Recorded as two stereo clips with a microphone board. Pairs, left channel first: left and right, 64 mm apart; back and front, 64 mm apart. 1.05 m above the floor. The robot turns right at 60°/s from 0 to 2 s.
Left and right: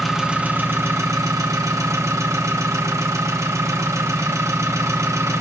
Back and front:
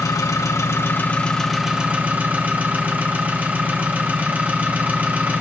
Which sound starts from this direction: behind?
An engine running, at 0.0 s.